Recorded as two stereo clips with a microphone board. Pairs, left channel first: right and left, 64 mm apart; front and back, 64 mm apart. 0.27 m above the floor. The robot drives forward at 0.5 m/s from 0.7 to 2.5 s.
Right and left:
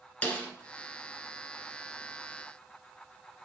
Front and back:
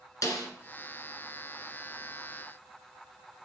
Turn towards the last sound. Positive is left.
turn(degrees=-50)